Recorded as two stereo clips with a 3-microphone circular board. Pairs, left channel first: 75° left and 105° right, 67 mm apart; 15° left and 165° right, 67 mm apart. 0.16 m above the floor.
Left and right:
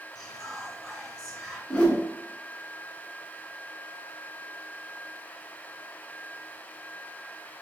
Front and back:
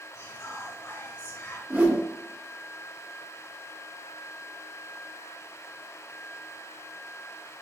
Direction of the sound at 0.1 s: 20° right.